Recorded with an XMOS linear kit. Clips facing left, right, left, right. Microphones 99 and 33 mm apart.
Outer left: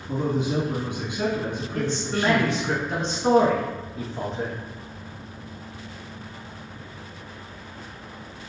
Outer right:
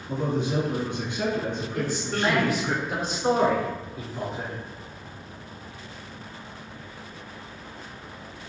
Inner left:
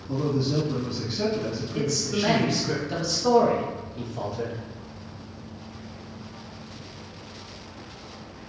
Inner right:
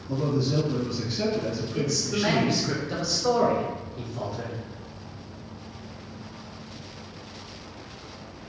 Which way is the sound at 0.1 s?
15° left (ahead or behind).